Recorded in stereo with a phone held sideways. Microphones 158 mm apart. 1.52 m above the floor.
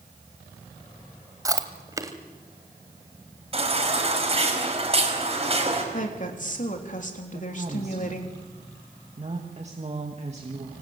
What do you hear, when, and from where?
1.4 s chewing: 20° right (ahead or behind), 1.7 m
3.5 s a baby crying: 40° right (ahead or behind), 5 m
5.9 s a woman speaking: 55° left (ahead or behind), 3.5 m
7.3 s a woman speaking: 45° right (ahead or behind), 2.5 m